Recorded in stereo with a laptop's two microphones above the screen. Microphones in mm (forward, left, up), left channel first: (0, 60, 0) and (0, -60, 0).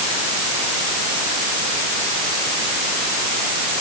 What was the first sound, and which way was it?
Only background noise.